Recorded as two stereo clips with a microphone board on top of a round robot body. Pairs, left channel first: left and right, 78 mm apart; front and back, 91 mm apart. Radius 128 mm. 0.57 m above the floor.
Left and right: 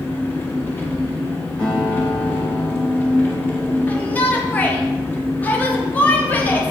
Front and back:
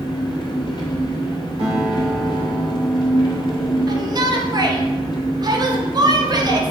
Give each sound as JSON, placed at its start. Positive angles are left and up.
{"t": 0.0, "sound": "an engine running", "azimuth_deg": 30, "distance_m": 1.8}
{"t": 1.6, "sound": "a guitar", "azimuth_deg": 165, "distance_m": 3.5}
{"t": 3.9, "sound": "a shout", "azimuth_deg": 155, "distance_m": 1.6}